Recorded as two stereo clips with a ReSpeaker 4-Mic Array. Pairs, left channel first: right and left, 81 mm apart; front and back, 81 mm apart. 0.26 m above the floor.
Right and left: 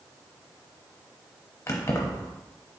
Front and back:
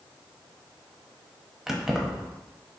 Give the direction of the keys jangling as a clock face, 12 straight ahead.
3 o'clock.